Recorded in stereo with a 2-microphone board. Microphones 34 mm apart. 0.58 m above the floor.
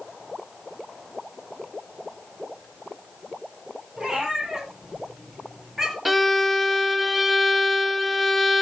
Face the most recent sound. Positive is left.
turn(degrees=-5)  # may be behind; listen again after turning